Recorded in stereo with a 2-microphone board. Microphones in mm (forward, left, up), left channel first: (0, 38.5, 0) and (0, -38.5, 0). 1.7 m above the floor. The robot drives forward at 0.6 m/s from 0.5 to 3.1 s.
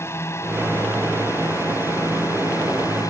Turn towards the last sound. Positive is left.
turn(degrees=45)  # may be behind; listen again after turning